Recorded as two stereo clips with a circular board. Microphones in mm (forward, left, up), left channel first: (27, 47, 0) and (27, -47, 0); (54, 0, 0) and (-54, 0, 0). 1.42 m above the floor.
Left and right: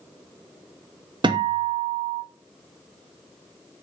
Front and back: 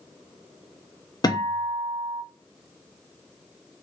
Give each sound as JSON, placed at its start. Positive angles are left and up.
{"t": 1.2, "sound": "a guitar", "azimuth_deg": -55, "distance_m": 0.5}